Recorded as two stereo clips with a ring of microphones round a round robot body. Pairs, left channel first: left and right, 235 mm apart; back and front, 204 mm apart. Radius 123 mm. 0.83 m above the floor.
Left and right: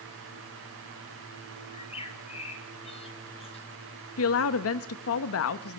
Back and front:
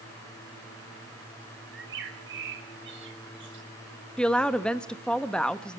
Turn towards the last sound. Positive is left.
turn(degrees=95)